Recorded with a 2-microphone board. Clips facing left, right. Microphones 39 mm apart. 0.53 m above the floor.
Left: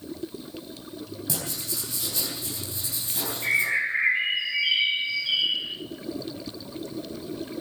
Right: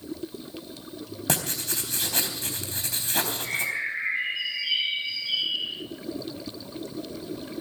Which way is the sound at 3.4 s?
40° left (ahead or behind).